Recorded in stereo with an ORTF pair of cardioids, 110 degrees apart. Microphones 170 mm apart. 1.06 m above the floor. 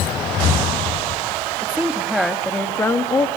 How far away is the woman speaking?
About 2.5 m.